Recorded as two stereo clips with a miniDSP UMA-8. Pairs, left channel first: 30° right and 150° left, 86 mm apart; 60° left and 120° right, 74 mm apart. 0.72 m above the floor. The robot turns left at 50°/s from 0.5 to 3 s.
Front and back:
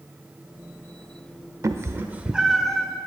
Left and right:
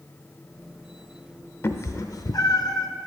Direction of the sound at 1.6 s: 110° left.